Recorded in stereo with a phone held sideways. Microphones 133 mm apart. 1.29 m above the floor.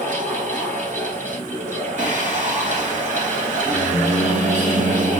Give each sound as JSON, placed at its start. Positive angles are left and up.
{"t": 0.0, "sound": "a fan", "side_deg": -75, "distance_m": 3.5}
{"t": 2.0, "sound": "singing", "side_deg": -65, "distance_m": 4.0}